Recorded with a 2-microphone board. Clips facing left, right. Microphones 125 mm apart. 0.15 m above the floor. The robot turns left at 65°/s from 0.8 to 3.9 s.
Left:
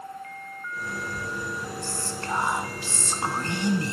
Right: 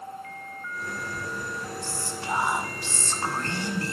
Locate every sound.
1.8 s whispering: 15° right (ahead or behind), 1.3 m; by 3.9 s 20° left (ahead or behind), 1.3 m